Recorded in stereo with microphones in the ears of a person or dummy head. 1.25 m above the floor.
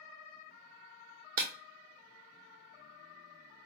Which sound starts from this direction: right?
Breaking glass, at 1.4 s.